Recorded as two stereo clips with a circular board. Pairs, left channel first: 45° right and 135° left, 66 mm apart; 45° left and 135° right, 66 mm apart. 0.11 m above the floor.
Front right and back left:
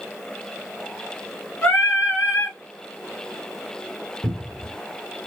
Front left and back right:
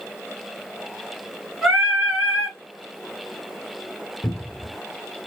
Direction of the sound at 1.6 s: 45° right.